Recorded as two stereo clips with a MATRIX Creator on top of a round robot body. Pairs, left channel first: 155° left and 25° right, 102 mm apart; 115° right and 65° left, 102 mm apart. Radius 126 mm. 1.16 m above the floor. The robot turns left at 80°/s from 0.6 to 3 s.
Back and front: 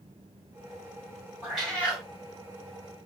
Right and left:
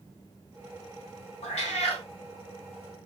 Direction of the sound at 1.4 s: 95° right.